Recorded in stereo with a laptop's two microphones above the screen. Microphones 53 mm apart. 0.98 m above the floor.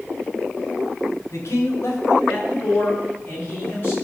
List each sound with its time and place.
1.3 s a man speaking: 70° left (ahead or behind), 3.5 m; by 3.9 s 40° left (ahead or behind), 6.5 m